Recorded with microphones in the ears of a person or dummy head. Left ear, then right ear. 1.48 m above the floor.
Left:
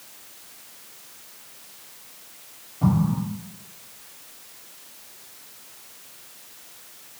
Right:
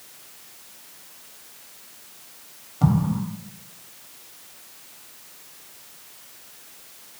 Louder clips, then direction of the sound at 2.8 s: Even; 45° right (ahead or behind).